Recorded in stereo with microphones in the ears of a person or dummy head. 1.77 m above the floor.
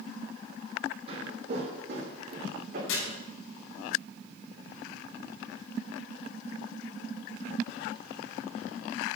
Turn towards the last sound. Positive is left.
turn(degrees=80)